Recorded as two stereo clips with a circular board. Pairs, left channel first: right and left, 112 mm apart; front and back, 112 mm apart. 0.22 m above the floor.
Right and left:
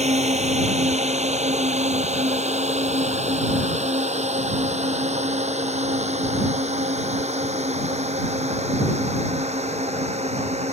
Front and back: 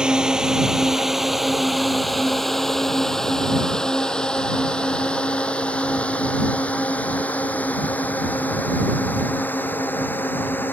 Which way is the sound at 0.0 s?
95° left.